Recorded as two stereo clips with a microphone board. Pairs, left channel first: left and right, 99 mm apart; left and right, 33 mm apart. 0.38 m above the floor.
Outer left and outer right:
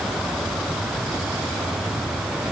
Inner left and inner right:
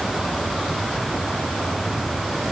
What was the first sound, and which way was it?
Only background noise.